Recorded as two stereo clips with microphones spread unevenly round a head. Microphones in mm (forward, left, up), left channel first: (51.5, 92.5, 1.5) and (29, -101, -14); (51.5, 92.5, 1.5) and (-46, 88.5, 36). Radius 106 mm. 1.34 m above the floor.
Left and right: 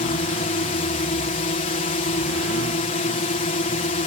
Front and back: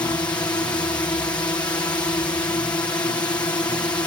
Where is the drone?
50° left.